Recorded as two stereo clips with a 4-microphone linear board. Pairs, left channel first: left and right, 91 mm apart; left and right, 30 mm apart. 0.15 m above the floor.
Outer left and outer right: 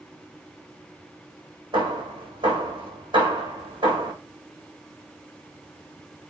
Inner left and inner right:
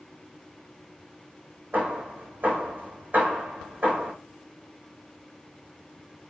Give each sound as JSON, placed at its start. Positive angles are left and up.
{"t": 1.7, "sound": "hammering", "side_deg": -60, "distance_m": 4.0}